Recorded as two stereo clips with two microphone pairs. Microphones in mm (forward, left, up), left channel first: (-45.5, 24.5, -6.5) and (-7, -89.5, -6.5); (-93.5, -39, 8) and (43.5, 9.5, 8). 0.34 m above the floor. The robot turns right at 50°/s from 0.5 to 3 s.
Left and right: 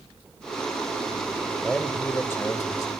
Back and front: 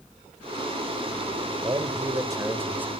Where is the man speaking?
25° left, 1.1 m; by 2.9 s 90° left, 1.1 m.